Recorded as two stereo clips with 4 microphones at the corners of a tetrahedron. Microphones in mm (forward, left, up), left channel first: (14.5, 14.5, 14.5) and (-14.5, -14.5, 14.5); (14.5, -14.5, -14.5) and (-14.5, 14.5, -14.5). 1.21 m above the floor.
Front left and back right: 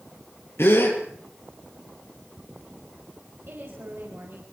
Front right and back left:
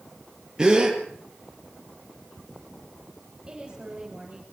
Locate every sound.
0.6 s a gasp: 60° left, 5 m
3.5 s a woman speaking: 165° right, 5.5 m